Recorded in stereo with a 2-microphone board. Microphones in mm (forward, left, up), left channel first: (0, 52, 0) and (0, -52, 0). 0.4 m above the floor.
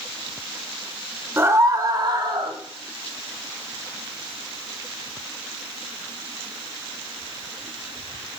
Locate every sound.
1.4 s a scream: 25° right (ahead or behind), 1.0 m; by 2.6 s 50° right (ahead or behind), 1.5 m